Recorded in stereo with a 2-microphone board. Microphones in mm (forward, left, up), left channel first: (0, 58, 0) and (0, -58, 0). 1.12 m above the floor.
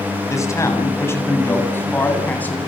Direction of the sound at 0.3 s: 25° left (ahead or behind).